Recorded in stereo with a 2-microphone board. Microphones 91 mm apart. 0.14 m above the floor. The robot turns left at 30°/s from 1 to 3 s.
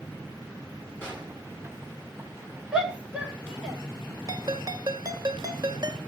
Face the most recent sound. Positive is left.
turn(degrees=-45)  # may be behind; listen again after turning